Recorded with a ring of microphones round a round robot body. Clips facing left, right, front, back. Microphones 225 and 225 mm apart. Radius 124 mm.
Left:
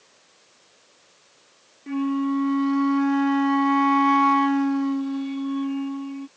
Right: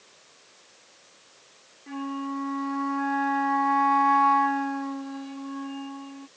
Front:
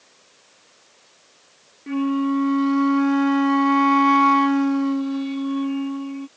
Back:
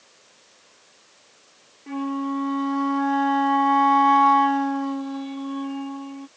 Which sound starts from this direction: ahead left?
A flute, at 1.9 s.